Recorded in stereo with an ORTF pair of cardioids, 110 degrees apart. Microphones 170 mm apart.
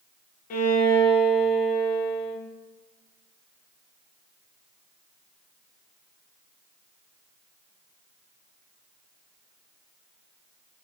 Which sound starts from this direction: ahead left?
A violin, at 0.5 s.